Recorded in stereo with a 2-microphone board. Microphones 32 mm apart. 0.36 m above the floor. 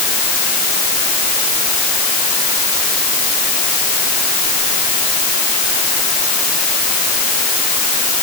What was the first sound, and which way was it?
Only background noise.